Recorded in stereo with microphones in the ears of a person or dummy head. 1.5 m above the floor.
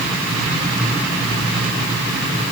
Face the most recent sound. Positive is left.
No sound to turn to.